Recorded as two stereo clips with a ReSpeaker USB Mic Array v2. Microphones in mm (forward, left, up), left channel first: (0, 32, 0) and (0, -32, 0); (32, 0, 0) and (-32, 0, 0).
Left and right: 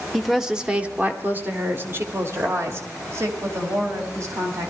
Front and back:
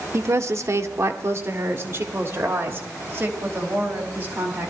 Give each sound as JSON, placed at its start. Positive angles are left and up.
{"t": 0.1, "sound": "a woman speaking", "azimuth_deg": 180, "distance_m": 0.9}